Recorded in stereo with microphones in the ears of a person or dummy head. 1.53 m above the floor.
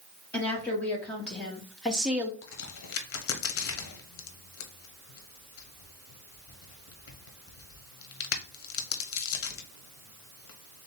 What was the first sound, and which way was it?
A woman speaking, 15° left (ahead or behind).